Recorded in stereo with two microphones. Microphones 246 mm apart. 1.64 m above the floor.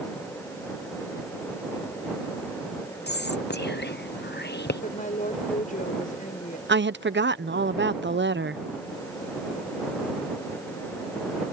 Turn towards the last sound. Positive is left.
turn(degrees=-45)  # may be behind; listen again after turning